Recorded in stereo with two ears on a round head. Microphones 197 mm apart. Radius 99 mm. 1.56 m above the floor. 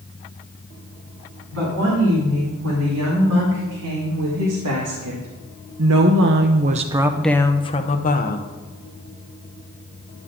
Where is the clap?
I don't hear a clap.